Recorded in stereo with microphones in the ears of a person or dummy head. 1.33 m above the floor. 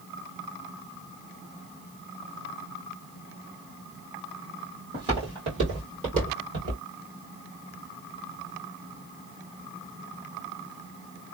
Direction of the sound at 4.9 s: 25° right (ahead or behind).